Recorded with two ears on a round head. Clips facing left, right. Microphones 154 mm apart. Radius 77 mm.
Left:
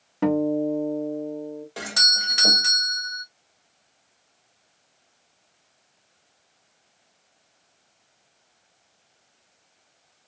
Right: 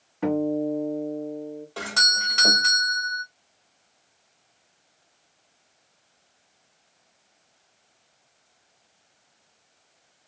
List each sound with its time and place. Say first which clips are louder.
0.2 s a guitar: left 2 dB; 75° left (ahead or behind), 1.7 m
1.8 s a doorbell: right 2 dB; 20° left (ahead or behind), 1.5 m